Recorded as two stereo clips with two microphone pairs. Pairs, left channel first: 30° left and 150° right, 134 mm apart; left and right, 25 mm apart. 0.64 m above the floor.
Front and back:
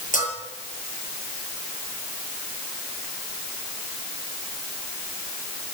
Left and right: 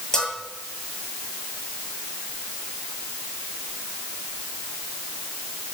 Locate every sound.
0.1 s a bell: 25° left, 8.5 m